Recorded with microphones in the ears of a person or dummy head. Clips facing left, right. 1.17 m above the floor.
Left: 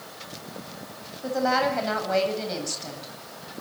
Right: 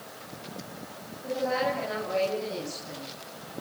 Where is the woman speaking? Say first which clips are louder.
Left 4 dB; 75° left (ahead or behind), 8.5 m.